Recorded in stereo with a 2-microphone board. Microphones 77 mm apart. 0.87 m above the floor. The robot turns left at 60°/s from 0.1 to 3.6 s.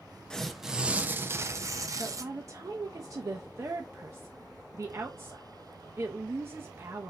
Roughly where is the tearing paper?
Ahead.